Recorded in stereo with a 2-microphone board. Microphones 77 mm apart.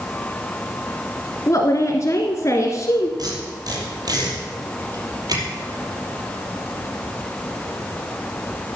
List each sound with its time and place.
1.5 s a woman speaking: 40° left (ahead or behind), 1.5 m
3.2 s tape being pulled: 55° right (ahead or behind), 4.5 m